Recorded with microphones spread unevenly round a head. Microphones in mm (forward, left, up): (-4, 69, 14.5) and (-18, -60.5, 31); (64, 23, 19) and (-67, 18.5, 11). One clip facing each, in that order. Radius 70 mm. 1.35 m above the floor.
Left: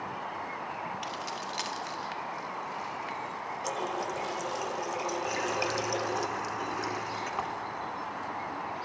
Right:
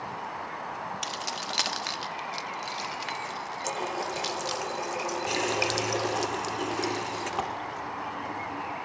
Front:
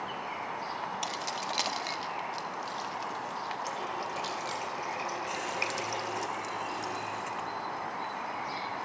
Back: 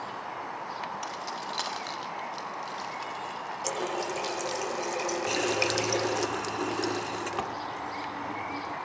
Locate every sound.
1.0 s keys jangling: 60° right, 1.3 m; by 4.6 s 100° right, 2.5 m
3.6 s a running tap: 170° right, 0.5 m
5.3 s a running tap: 150° right, 1.0 m